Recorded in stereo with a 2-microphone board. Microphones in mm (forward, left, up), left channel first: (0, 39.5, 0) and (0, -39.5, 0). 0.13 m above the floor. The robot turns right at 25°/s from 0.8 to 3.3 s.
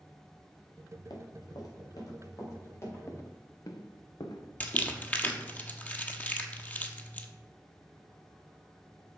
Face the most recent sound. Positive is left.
turn(degrees=20)  # may be behind; listen again after turning